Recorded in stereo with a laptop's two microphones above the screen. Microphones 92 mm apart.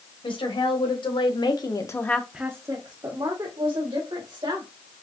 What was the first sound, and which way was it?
A woman speaking, 75° left (ahead or behind).